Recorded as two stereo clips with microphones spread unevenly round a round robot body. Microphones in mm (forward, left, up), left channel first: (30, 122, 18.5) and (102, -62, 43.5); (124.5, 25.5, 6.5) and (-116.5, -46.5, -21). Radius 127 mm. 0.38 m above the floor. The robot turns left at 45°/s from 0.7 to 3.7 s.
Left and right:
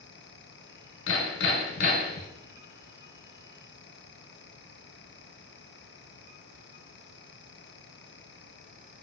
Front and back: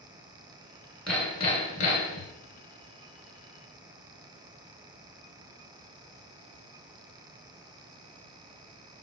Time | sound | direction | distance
1.1 | hammering | 105° left | 1.3 m